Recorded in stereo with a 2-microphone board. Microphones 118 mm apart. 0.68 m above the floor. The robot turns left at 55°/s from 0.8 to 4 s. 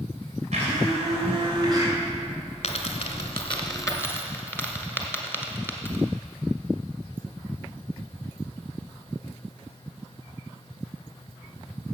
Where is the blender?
90° right, 3 m; by 1.9 s 155° right, 3 m.